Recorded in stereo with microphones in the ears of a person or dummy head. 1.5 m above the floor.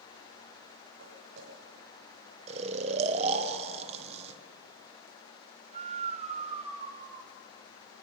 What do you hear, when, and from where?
1.0 s footsteps: 55° right (ahead or behind), 8 m
2.5 s snoring: 30° right (ahead or behind), 1.3 m